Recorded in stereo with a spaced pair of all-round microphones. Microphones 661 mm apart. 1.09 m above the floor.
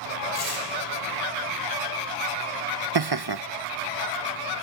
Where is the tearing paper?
70° left (ahead or behind), 8 m.